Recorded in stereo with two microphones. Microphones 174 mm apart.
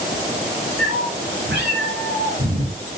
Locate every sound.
0.8 s a cat meowing: 85° right, 8.5 m